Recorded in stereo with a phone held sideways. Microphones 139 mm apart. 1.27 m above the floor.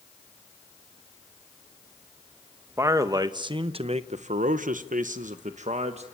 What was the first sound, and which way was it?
A man speaking, 20° right (ahead or behind).